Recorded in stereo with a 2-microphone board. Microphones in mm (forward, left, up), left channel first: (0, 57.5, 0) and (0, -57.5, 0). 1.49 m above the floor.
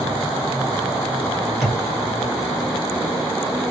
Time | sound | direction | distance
1.6 | a thud | centre (ahead or behind) | 1.9 m